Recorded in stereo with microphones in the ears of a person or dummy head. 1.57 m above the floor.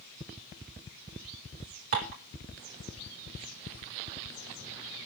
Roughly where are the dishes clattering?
Right.